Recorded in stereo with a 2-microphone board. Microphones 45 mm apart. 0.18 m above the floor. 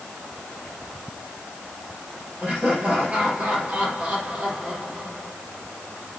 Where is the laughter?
30° right (ahead or behind), 4.5 m.